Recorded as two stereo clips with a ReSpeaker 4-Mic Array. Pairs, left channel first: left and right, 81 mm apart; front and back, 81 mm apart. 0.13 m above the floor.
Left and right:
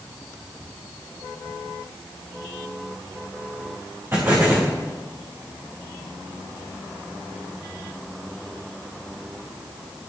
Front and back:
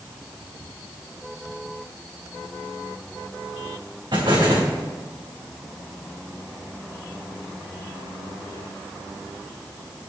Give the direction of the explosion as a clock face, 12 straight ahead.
5 o'clock.